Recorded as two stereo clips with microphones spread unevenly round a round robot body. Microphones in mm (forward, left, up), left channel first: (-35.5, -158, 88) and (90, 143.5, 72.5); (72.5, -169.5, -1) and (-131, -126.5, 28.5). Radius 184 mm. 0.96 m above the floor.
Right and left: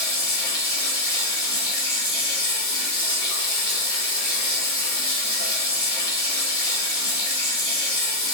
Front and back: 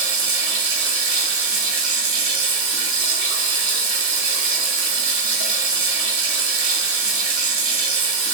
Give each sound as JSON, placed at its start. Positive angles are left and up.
{"t": 0.0, "sound": "running water", "azimuth_deg": 170, "distance_m": 0.8}